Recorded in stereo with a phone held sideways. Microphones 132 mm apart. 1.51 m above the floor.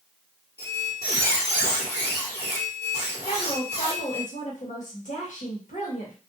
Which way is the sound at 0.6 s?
30° left (ahead or behind).